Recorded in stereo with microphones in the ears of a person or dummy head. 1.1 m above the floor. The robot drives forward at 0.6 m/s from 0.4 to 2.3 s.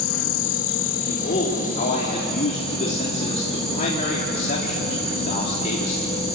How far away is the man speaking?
About 3.5 m.